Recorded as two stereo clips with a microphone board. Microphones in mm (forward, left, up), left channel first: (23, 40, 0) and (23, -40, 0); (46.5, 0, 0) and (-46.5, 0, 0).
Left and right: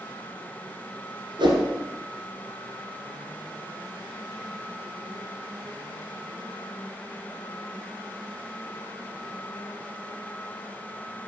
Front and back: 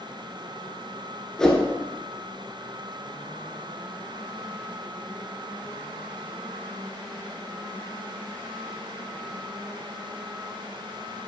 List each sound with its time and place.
1.4 s a whoosh: 85° right, 1.3 m